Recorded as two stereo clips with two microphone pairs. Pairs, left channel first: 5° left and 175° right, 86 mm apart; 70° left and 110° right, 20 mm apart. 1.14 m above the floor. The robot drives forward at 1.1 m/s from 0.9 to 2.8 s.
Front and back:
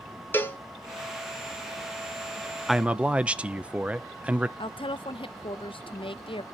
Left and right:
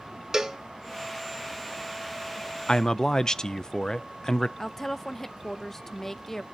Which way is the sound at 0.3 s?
50° right.